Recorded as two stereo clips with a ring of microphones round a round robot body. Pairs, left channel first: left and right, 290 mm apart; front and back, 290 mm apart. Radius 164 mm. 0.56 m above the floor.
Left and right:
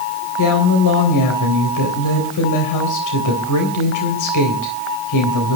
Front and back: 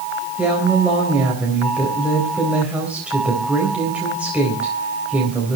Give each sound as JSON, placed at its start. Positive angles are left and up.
{"t": 0.4, "sound": "a woman speaking", "azimuth_deg": 95, "distance_m": 3.5}